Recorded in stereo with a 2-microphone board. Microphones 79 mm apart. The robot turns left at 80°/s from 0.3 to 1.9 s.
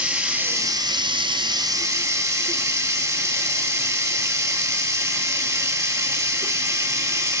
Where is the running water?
15° right, 1.1 m; by 7.4 s 140° right, 1.1 m.